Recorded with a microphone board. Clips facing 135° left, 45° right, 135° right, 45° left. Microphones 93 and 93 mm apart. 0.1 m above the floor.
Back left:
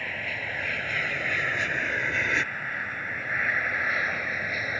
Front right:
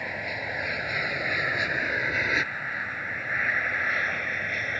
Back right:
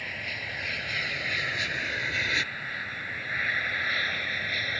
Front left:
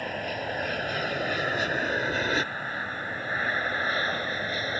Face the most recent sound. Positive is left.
turn(degrees=55)